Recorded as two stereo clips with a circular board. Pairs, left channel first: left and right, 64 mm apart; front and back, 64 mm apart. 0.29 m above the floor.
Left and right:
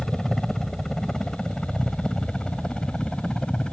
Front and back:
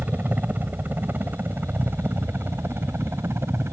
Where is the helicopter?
170° left; by 3.7 s 160° left.